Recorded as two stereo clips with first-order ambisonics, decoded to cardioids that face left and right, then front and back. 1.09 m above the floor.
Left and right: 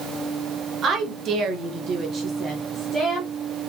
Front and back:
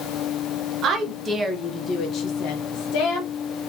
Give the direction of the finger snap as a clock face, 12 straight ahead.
No finger snap in this recording.